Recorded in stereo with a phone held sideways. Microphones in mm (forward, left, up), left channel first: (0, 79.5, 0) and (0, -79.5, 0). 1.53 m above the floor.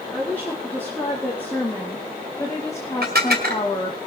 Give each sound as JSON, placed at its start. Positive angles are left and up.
{"t": 0.1, "sound": "a woman speaking", "side_deg": 10, "distance_m": 4.0}
{"t": 3.0, "sound": "dishes clattering", "side_deg": -75, "distance_m": 2.5}